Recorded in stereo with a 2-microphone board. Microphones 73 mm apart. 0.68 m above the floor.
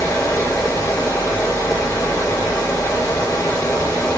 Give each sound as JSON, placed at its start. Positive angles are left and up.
{"t": 0.0, "sound": "running water", "side_deg": 50, "distance_m": 1.6}